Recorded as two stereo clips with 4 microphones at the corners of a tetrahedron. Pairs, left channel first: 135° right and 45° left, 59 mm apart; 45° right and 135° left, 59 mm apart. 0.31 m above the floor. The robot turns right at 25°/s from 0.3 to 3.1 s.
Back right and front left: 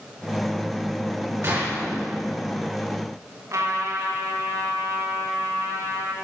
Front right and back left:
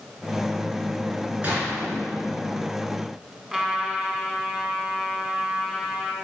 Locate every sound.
1.4 s a gunshot: 75° left, 4.5 m; by 1.8 s 85° left, 4.5 m
3.5 s a trumpet: 60° left, 2 m